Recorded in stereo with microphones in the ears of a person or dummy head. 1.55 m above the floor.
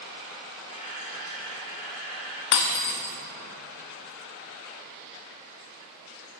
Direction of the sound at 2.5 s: 60° left (ahead or behind).